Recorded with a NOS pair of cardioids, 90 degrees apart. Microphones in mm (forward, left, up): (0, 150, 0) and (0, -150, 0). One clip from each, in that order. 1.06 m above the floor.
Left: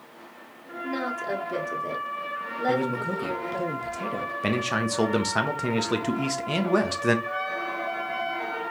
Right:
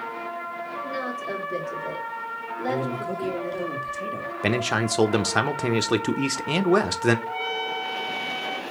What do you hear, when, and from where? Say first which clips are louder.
0.8 s a woman speaking: left 3 dB; 30° left, 1.8 m
2.7 s a man speaking: left 2 dB; 15° left, 1.1 m
4.4 s a man speaking: right 4 dB; 15° right, 0.7 m
7.3 s a trumpet: right 1 dB; 40° right, 1.3 m